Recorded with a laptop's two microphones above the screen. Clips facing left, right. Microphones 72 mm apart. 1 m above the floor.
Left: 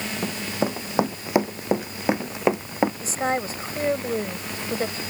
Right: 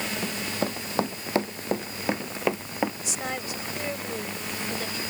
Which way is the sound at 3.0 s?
40° left (ahead or behind).